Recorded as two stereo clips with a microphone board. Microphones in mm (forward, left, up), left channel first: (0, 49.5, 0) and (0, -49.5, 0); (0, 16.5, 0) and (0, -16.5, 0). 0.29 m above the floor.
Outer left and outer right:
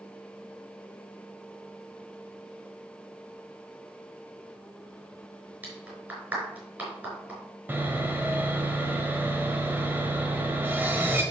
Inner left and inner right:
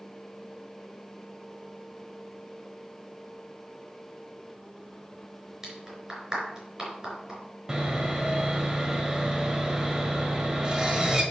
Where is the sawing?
20° right (ahead or behind), 1.4 m.